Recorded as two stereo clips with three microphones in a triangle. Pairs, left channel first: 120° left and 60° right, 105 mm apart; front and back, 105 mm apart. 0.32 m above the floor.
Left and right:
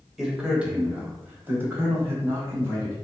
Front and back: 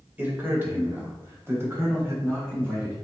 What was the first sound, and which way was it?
A man speaking, 140° right.